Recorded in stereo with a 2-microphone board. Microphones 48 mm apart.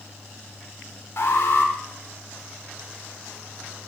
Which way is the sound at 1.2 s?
60° left (ahead or behind).